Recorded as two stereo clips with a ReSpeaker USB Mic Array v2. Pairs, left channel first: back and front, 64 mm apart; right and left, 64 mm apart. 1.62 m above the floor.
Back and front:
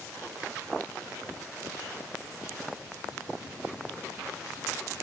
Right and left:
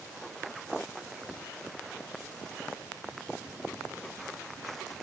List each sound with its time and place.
Only background noise.